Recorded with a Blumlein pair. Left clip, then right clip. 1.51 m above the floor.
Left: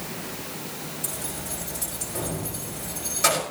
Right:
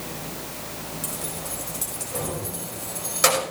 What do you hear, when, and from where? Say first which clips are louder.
1.0 s keys jangling: right 1 dB; 60° right, 5 m